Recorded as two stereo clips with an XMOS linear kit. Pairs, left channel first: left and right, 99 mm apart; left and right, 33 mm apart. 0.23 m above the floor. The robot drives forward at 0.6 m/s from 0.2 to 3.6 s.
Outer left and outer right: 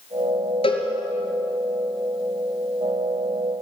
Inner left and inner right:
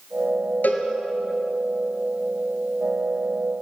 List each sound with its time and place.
0.6 s a cowbell: 65° left (ahead or behind), 3 m